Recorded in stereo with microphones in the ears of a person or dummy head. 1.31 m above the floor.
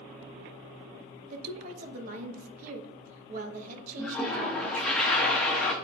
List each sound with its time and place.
1.3 s a woman speaking: 45° right (ahead or behind), 1.1 m
4.0 s a toilet flushing: 5° left (ahead or behind), 0.8 m